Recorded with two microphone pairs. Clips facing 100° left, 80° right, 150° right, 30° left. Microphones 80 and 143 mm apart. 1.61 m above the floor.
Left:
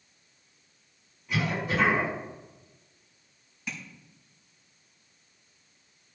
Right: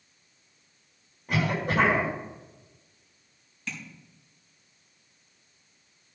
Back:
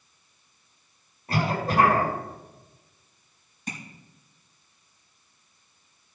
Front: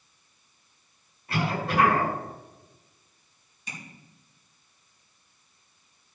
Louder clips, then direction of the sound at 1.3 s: Right 2 dB, back 2 dB; 105° right.